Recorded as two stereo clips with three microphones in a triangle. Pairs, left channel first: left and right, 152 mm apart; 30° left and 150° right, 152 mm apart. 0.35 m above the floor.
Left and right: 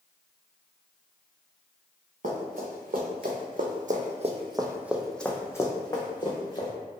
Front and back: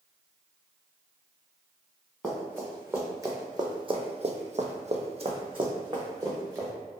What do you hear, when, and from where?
2.2 s running footsteps: 70° right, 1.3 m; by 6.7 s 145° left, 1.3 m